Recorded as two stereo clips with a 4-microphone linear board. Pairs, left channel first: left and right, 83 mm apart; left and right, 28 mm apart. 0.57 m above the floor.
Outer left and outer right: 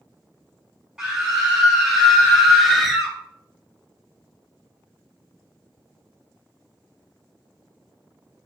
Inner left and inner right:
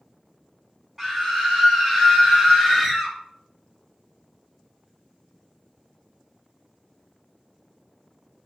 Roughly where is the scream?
Centre.